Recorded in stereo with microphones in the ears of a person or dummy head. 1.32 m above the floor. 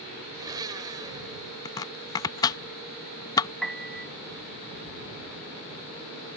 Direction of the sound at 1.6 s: 20° left (ahead or behind).